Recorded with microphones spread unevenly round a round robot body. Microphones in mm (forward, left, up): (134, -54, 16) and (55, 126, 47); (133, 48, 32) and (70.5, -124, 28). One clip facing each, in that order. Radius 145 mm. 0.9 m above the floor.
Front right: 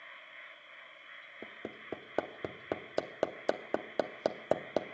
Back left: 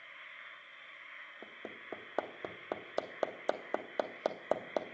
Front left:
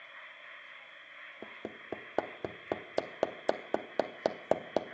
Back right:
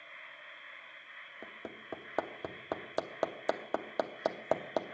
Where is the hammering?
5° left, 0.7 m.